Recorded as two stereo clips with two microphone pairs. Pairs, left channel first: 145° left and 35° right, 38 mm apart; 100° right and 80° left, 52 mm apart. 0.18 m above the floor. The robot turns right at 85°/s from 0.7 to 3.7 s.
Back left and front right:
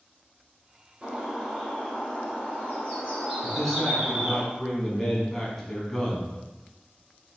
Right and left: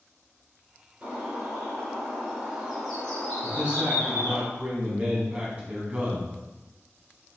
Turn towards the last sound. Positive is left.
turn(degrees=80)